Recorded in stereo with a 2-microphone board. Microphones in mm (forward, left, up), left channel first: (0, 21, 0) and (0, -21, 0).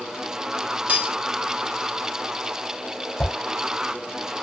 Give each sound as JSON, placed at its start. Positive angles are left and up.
{"t": 0.9, "sound": "cutlery clinking", "side_deg": -35, "distance_m": 0.6}
{"t": 3.2, "sound": "a whoosh", "side_deg": 75, "distance_m": 1.7}